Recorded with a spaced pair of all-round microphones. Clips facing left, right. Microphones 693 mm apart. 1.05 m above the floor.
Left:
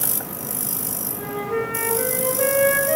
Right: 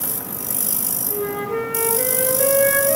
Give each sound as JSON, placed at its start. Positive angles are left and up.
{"t": 1.1, "sound": "a flute", "side_deg": -60, "distance_m": 1.6}